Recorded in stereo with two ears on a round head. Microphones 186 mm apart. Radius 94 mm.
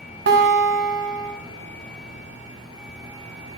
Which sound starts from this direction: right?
A guitar, at 0.3 s.